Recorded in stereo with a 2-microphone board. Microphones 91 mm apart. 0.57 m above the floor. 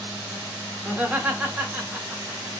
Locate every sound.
0.8 s laughter: 15° right (ahead or behind), 1.2 m